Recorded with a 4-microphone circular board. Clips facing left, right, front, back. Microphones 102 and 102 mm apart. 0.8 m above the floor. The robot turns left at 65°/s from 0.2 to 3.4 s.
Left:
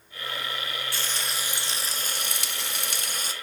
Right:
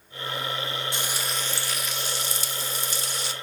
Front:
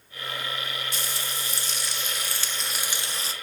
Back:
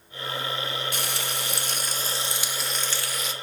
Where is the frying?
155° right, 0.7 m; by 3.3 s 45° left, 0.7 m.